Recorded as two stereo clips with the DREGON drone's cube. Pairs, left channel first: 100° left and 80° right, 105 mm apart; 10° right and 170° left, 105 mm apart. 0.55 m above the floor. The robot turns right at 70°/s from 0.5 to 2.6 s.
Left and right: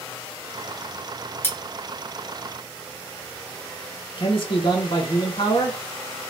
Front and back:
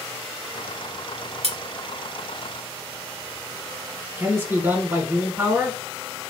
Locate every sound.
1.4 s cutlery clinking: 165° left, 0.9 m; by 1.6 s 175° left, 0.9 m
4.2 s a man speaking: 105° left, 1.9 m